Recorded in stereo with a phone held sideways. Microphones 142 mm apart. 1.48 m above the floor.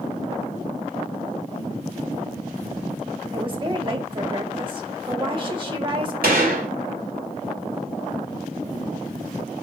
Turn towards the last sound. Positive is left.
turn(degrees=-80)